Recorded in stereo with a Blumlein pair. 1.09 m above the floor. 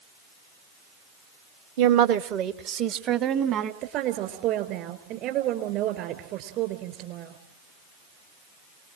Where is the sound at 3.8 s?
40° right, 3.5 m.